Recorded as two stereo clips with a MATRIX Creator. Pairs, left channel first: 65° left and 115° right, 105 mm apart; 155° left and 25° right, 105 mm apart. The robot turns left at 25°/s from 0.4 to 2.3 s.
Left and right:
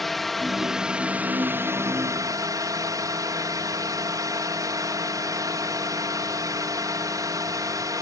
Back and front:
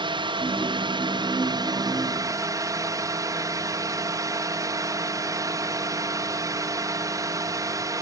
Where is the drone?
20° right; by 8.0 s 70° right.